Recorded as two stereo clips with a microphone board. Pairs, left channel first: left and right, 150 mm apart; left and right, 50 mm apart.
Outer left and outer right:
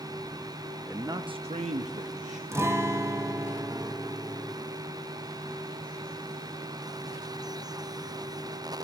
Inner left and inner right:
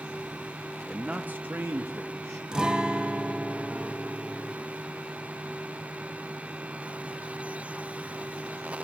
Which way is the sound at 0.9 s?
10° right (ahead or behind).